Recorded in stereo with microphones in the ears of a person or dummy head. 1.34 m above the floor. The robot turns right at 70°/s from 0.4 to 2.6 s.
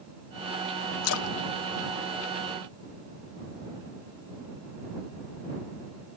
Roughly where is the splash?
Left.